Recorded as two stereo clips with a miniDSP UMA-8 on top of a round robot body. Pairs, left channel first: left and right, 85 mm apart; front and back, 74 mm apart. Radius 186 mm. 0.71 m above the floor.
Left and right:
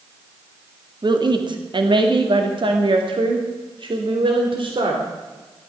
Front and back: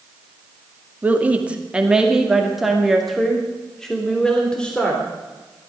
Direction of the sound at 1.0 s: 115° right.